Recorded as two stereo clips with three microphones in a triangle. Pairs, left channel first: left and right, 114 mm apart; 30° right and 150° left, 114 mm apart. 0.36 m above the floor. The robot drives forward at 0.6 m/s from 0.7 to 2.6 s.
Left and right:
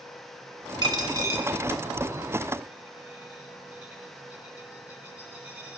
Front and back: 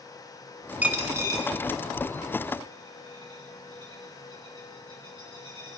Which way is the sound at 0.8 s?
135° right.